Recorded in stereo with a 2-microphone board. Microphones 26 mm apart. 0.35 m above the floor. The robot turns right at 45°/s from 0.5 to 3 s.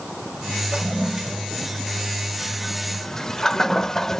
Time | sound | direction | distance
0.7 | a toilet flushing | 25° right (ahead or behind) | 0.5 m